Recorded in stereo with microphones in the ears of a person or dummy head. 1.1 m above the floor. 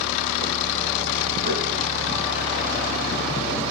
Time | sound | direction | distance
1.4 | knocking | 45° right (ahead or behind) | 7 m